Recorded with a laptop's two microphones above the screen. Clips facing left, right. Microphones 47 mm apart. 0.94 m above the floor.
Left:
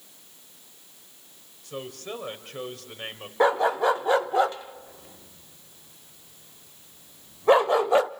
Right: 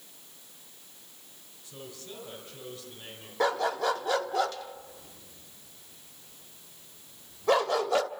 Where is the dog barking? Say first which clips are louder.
Left 6 dB; 25° left (ahead or behind), 0.5 m.